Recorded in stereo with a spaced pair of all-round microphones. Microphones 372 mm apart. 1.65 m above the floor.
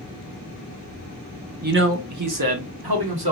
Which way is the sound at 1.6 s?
25° right (ahead or behind).